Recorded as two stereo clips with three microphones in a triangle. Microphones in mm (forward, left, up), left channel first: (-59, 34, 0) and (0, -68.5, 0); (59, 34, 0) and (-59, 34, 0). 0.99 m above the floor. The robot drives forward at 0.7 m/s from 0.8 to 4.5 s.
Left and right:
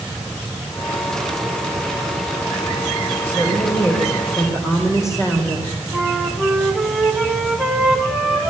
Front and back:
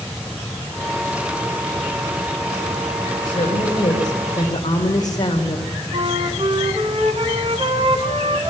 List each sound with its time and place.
3.2 s a woman speaking: 45° left, 4.5 m; by 5.7 s 55° left, 4 m
5.9 s a flute: 145° right, 2 m